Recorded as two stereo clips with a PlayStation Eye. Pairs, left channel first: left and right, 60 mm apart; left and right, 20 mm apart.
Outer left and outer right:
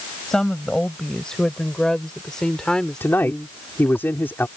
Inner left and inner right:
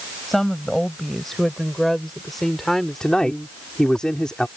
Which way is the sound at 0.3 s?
10° left (ahead or behind).